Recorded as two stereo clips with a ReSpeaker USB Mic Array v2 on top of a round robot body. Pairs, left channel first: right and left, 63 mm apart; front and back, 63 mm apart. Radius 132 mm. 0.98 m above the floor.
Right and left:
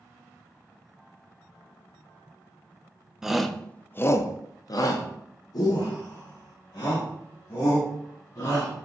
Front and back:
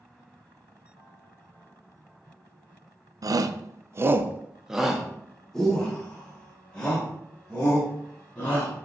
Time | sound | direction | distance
3.2 | a shout | 170° left | 0.6 m